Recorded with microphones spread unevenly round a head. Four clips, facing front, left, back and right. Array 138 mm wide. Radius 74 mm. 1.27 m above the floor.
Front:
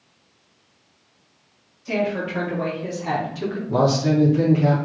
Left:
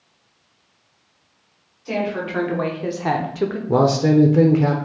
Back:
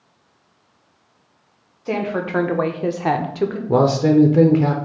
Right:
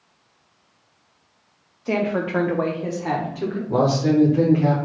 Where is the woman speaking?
145° right, 1.2 m; by 3.6 s 100° left, 0.7 m.